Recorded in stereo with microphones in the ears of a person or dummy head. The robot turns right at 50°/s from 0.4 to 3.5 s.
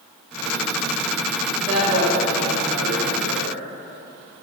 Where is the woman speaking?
165° right, 1.1 m; by 3.6 s 65° right, 1.1 m.